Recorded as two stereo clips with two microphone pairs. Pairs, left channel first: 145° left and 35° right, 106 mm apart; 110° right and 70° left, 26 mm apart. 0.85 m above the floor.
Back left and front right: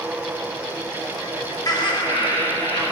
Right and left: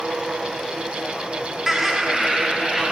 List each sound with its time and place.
1.7 s laughter: 145° left, 0.9 m